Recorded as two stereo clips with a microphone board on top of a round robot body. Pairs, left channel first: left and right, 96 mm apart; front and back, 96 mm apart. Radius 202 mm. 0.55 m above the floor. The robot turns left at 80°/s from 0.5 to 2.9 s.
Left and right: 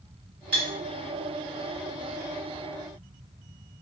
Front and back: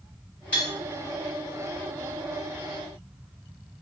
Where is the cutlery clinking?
75° right, 2.0 m; by 0.7 s 85° right, 2.0 m.